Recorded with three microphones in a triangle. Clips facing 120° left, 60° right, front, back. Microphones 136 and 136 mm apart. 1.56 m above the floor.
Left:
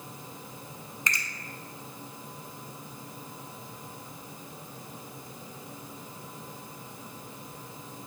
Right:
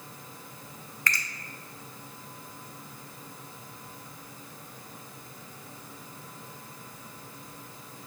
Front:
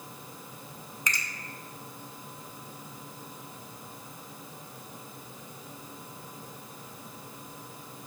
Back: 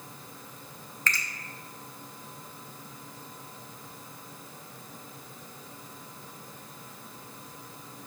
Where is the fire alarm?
I don't hear a fire alarm.